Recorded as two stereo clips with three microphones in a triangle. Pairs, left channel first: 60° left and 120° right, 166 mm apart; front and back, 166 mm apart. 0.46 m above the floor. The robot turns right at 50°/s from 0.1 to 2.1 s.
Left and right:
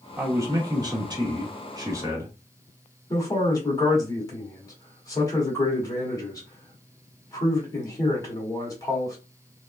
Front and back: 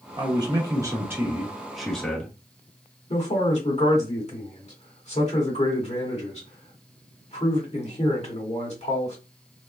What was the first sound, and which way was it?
A man speaking, 175° right.